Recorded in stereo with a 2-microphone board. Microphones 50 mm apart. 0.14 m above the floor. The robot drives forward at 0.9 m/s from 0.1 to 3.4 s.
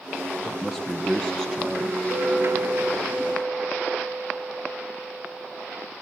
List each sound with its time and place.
0.4 s a man speaking: 10° right (ahead or behind), 2.5 m; by 2.0 s 20° right (ahead or behind), 1.6 m
2.1 s a clink: 35° right (ahead or behind), 3 m; by 5.9 s 25° right (ahead or behind), 4 m